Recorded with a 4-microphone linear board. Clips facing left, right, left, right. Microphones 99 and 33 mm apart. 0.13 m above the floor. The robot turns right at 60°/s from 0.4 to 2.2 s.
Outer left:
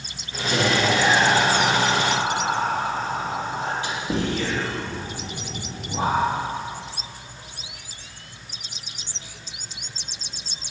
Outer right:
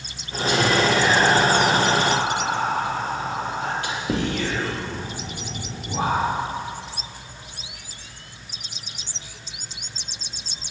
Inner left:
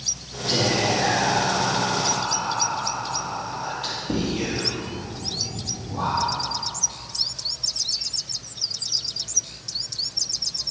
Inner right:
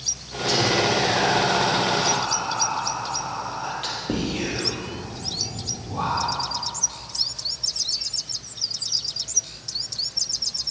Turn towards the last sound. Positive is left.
turn(degrees=-120)